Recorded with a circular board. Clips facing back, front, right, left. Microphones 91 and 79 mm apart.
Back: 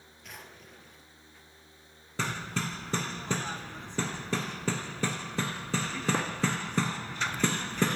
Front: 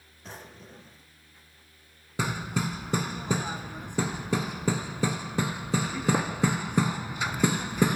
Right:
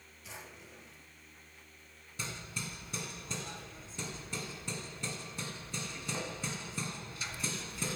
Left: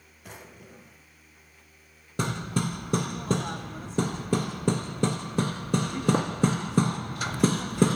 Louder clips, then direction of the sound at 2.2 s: Front 3 dB, left 14 dB; 75° left.